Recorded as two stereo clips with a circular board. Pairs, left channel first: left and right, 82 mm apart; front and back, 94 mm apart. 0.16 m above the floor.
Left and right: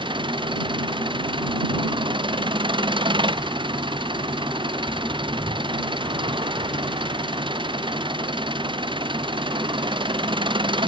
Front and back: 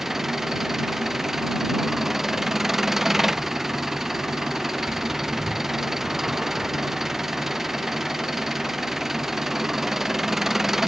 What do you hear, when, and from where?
0.0 s an engine running: 95° right